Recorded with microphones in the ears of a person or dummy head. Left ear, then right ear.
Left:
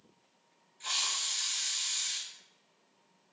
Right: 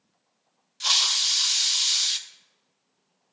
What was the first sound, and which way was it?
A hiss, 50° right (ahead or behind).